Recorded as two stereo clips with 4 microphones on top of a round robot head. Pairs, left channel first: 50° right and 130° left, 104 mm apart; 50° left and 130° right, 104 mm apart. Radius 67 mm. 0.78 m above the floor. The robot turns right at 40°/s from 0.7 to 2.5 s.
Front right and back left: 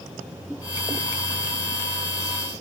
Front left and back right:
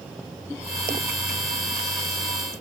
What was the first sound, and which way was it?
Only background noise.